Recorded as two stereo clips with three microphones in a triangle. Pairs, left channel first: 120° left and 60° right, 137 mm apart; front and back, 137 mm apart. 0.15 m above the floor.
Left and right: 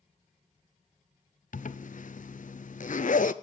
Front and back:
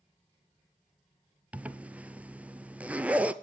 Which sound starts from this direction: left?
A zipper, at 1.5 s.